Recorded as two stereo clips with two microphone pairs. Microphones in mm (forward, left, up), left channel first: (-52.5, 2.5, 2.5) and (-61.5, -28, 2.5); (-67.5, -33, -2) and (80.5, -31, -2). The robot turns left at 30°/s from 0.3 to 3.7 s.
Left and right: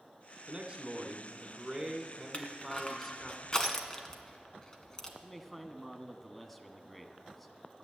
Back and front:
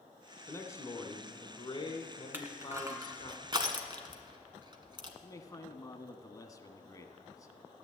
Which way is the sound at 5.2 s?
160° left.